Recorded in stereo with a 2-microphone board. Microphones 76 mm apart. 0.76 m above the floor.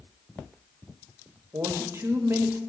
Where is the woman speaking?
40° right (ahead or behind), 1.1 m.